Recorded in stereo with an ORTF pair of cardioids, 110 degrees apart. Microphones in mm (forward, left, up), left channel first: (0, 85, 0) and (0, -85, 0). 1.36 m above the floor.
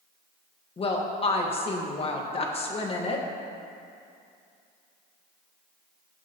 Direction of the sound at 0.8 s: 35° left.